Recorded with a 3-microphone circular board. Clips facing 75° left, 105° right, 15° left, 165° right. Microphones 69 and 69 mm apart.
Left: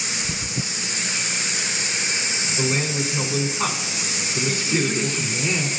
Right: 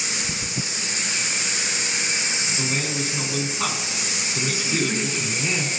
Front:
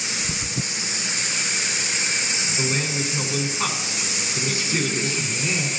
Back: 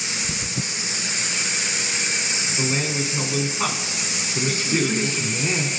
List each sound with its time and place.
2.6 s a man speaking: 130° left, 1.2 m
4.3 s a man speaking: 175° left, 1.4 m